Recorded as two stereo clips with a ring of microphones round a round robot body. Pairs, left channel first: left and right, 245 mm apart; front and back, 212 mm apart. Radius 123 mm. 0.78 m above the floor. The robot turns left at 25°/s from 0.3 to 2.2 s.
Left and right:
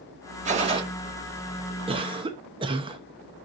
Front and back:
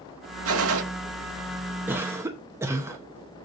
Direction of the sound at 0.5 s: 150° right.